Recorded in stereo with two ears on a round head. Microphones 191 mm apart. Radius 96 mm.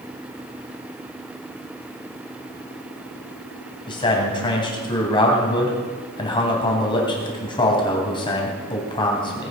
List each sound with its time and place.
3.9 s a man speaking: 20° left (ahead or behind), 3.5 m